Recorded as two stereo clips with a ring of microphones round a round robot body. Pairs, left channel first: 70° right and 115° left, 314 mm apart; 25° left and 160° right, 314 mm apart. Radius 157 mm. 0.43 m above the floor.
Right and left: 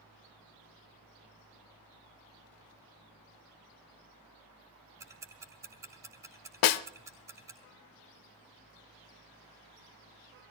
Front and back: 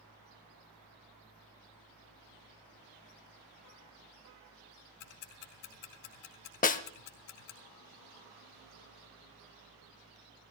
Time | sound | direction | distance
5.0 | ticking | 35° left | 1.8 m
6.6 | a snare drum | 45° right | 0.6 m